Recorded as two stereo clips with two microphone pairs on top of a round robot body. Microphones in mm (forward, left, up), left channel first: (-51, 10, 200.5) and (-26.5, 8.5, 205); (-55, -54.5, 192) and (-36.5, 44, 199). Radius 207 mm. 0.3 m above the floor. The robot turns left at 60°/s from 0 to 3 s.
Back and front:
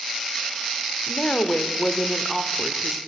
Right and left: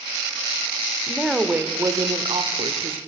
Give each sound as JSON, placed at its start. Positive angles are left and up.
{"t": 1.1, "sound": "a woman speaking", "azimuth_deg": 180, "distance_m": 1.9}